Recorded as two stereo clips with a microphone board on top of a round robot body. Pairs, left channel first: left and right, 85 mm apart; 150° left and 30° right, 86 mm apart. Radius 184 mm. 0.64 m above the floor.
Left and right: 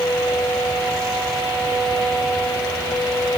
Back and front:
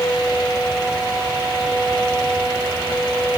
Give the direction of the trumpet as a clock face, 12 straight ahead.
No trumpet in this recording.